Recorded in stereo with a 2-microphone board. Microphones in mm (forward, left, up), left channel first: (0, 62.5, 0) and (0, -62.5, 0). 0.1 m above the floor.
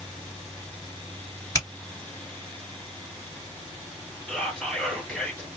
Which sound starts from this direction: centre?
Whispering, at 4.3 s.